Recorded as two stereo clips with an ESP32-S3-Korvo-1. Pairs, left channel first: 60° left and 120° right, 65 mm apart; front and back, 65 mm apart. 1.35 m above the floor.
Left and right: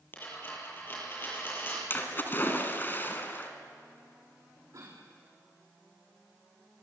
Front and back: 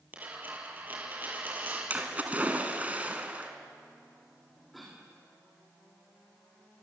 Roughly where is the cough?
Right.